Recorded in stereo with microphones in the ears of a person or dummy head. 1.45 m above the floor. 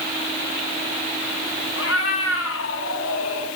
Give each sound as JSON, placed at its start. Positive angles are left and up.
{"t": 1.8, "sound": "a cat meowing", "side_deg": 65, "distance_m": 6.5}